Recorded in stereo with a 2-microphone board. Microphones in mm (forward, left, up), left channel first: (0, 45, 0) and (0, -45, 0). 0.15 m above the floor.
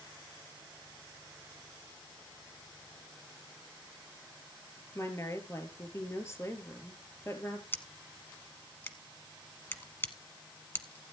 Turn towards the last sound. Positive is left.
turn(degrees=25)  # may be behind; listen again after turning